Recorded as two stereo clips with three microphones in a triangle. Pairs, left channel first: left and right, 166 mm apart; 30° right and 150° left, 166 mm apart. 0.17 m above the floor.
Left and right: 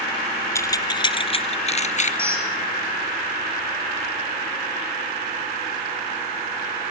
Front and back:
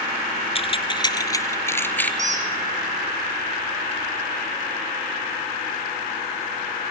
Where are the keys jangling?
20° left, 1.4 m; by 2.1 s 50° left, 1.8 m.